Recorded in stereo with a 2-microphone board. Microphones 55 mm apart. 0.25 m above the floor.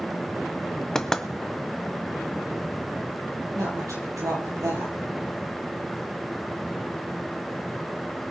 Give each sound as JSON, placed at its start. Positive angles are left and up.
{"t": 0.9, "sound": "knocking", "side_deg": 10, "distance_m": 1.0}
{"t": 3.5, "sound": "a woman speaking", "side_deg": -75, "distance_m": 6.0}